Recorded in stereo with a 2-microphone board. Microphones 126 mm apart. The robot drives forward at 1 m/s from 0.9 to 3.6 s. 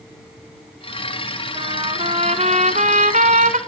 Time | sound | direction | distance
1.6 | a trumpet | 40° right (ahead or behind) | 2.5 m